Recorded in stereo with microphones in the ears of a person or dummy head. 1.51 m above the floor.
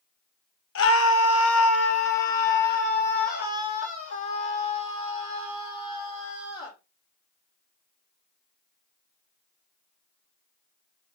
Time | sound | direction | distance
0.8 | a scream | 70° left (ahead or behind) | 1.4 m